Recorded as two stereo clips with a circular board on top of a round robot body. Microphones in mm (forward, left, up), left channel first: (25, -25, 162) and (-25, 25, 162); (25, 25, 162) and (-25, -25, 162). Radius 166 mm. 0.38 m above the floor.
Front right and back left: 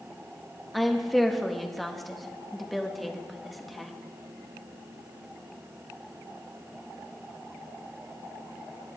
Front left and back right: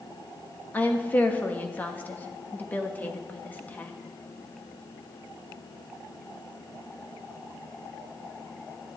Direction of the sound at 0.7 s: 45° left.